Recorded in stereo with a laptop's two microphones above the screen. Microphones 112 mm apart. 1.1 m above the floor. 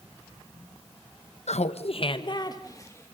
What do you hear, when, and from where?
1.5 s laughter: 85° left, 0.6 m; by 3.1 s 25° left (ahead or behind), 1.3 m